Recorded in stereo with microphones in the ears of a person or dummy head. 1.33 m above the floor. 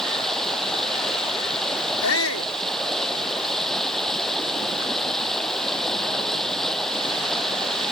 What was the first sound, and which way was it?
Running water, centre (ahead or behind).